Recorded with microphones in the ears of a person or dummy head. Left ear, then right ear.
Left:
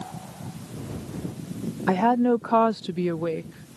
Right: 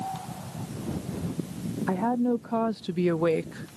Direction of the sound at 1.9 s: 80° left.